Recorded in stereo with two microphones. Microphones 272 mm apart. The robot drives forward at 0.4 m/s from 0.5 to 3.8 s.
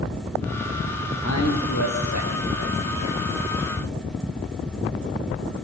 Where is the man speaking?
75° left (ahead or behind), 6 m; by 3.2 s 80° left, 6 m.